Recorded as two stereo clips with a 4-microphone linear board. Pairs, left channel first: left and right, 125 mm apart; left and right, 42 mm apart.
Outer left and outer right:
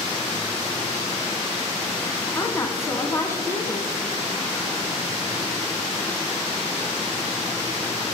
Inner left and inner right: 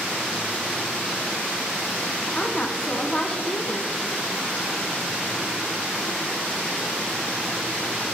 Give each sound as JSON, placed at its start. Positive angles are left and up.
{"t": 2.4, "sound": "a woman speaking", "side_deg": 25, "distance_m": 1.2}